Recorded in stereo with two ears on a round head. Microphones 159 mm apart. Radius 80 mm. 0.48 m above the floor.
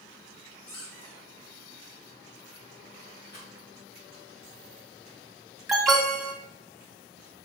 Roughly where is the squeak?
Left.